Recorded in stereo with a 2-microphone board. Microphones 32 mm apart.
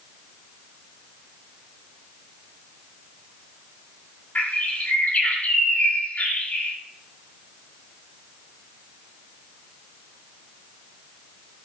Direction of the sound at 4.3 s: 45° left (ahead or behind).